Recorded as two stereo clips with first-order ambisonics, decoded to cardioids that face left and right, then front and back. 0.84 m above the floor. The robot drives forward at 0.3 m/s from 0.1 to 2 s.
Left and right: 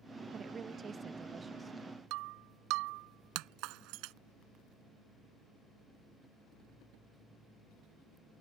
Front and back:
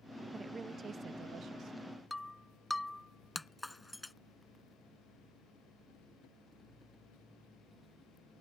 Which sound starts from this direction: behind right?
A woman speaking, at 0.3 s.